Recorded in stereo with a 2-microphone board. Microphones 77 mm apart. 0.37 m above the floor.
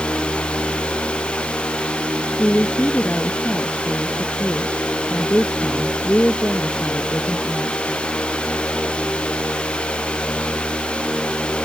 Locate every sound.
2.4 s a woman speaking: 20° left (ahead or behind)